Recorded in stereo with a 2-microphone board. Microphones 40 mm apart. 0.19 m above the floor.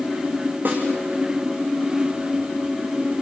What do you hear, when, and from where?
0.7 s a snare drum: 50° right (ahead or behind), 5.5 m